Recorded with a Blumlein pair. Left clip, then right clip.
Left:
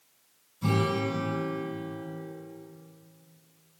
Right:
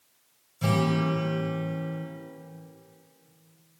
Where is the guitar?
60° right, 3.5 m.